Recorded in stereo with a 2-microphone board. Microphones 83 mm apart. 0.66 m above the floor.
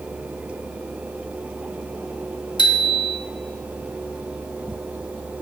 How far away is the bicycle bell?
About 2.5 m.